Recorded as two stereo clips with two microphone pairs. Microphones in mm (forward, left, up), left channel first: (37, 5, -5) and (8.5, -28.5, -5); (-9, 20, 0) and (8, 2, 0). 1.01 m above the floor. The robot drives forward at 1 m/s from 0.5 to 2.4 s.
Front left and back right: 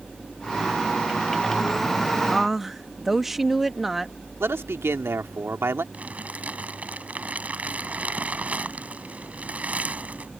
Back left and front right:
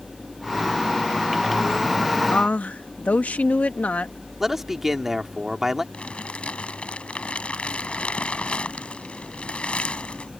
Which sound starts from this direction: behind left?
A woman speaking, at 2.3 s.